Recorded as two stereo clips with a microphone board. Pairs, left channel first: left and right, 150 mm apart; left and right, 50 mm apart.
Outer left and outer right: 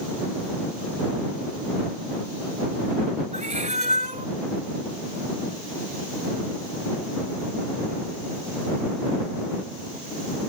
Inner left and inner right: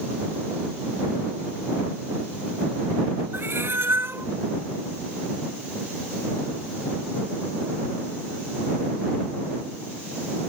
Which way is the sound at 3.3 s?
55° right (ahead or behind).